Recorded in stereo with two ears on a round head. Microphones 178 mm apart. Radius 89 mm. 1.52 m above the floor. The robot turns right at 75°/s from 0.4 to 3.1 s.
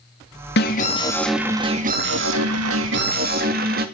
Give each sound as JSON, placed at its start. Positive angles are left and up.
{"t": 0.6, "sound": "an alarm", "azimuth_deg": 125, "distance_m": 2.0}